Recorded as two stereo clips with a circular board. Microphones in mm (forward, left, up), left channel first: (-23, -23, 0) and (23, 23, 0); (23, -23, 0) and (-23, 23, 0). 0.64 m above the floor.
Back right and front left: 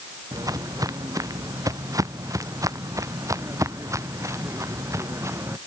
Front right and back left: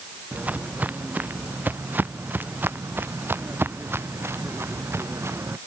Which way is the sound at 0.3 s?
70° left.